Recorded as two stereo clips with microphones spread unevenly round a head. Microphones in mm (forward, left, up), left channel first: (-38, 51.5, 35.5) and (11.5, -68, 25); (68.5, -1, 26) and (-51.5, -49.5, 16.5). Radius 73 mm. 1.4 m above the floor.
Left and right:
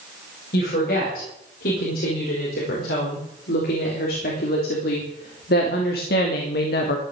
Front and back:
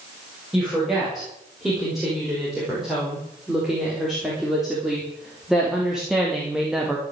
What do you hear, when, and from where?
0.5 s a woman speaking: 115° left, 6.5 m